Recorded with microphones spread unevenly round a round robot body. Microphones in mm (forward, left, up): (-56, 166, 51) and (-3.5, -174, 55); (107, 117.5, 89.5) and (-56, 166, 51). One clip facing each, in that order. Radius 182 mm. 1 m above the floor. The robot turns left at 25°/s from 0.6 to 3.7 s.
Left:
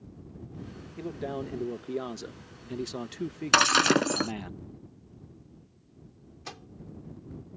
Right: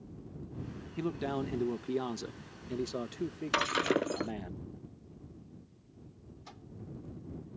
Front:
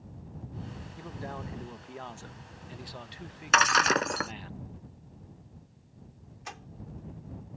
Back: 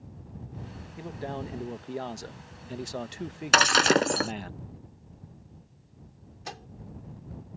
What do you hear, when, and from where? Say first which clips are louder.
1.0 s a man speaking: right 1 dB, back 6 dB; 135° right; by 4.5 s 160° left
3.5 s breaking glass: left 6 dB, back 5 dB; 110° left; by 4.3 s 105° left
6.5 s a microwave: left 6 dB, back 4 dB; 110° left